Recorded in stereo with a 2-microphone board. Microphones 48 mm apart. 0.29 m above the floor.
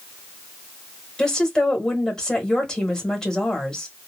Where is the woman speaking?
15° left (ahead or behind), 1.2 m.